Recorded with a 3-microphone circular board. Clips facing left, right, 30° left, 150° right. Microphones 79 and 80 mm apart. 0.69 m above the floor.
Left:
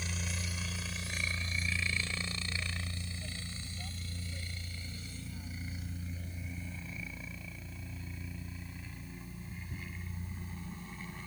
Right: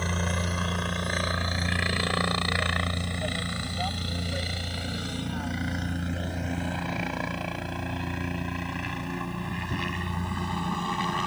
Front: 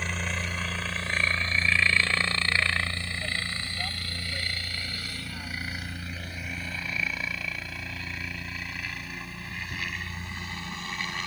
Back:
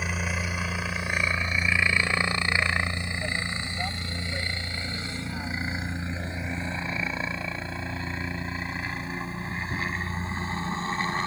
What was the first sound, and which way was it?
A helicopter, 70° right.